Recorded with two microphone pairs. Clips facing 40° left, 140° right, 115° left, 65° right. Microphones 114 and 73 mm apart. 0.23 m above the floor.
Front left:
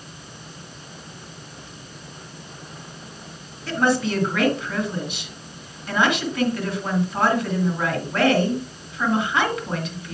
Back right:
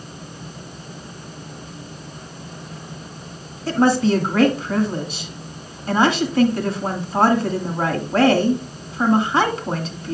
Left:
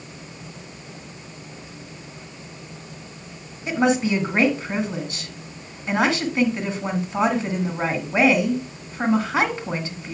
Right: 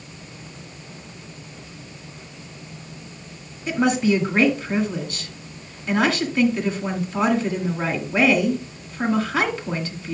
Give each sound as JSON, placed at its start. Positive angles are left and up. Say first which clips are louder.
{"t": 3.7, "sound": "a woman speaking", "louder": "back right 5 dB, right 1 dB", "azimuth_deg": 175, "distance_m": 1.8}